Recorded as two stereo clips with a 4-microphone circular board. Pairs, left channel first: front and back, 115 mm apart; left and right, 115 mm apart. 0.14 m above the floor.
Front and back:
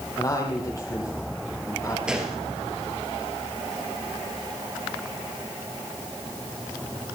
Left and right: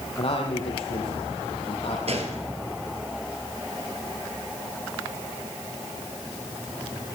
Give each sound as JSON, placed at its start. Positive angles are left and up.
{"t": 0.2, "sound": "a man speaking", "azimuth_deg": 60, "distance_m": 5.5}
{"t": 2.1, "sound": "a gunshot", "azimuth_deg": -100, "distance_m": 2.5}